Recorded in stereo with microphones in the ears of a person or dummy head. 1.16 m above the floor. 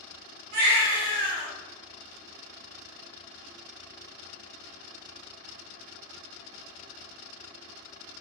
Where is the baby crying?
55° right (ahead or behind), 0.9 m.